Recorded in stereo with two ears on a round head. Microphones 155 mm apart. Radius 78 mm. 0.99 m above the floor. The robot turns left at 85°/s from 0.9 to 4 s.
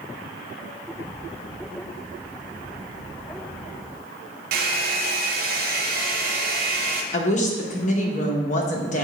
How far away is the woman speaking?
About 1.1 m.